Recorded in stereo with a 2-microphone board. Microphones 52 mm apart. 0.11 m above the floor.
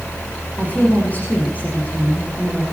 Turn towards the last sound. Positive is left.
turn(degrees=35)  # may be behind; listen again after turning